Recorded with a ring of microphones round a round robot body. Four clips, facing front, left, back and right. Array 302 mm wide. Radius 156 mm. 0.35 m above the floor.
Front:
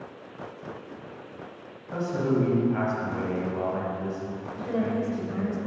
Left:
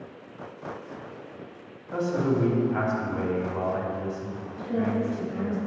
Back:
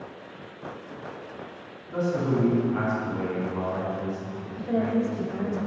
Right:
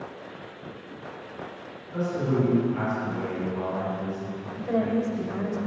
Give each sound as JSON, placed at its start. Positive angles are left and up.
{"t": 1.9, "sound": "a man speaking", "azimuth_deg": 65, "distance_m": 3.0}
{"t": 4.5, "sound": "a woman speaking", "azimuth_deg": -85, "distance_m": 1.6}